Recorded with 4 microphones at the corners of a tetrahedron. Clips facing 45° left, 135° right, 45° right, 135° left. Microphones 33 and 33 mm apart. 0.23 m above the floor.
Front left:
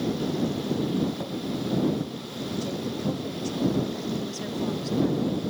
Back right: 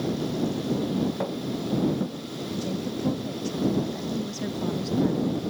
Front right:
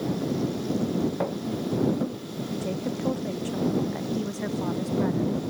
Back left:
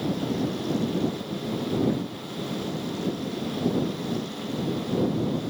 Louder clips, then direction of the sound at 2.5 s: Even, front right 2 dB; 50° right.